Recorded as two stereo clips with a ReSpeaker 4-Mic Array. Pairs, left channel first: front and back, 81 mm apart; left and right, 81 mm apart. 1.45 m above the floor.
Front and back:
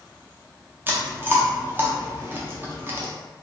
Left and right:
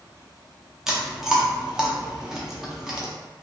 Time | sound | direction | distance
0.9 | chewing | 165° right | 0.6 m